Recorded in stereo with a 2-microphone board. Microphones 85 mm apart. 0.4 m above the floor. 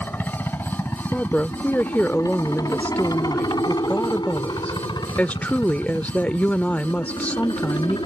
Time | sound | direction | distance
0.0 | a helicopter | 25° left (ahead or behind) | ?
1.1 | a woman speaking | 20° left (ahead or behind) | ?